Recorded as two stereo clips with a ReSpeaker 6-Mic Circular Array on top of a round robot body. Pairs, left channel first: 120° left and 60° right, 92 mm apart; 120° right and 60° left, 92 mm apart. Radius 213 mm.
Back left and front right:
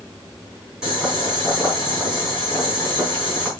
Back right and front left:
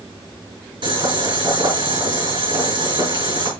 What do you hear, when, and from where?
0.8 s boiling: 25° left, 3 m